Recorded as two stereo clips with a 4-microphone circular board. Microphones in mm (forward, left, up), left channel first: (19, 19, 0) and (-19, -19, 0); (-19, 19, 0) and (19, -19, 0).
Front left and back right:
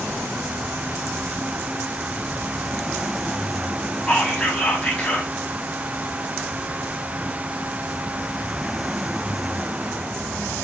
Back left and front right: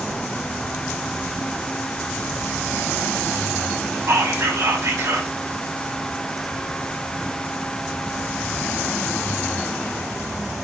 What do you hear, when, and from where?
4.1 s whispering: 25° right, 6 m